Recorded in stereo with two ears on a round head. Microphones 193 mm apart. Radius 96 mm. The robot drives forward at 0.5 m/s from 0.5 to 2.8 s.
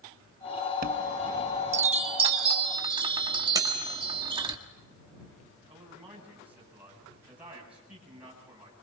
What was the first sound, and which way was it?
A chime, 40° right (ahead or behind).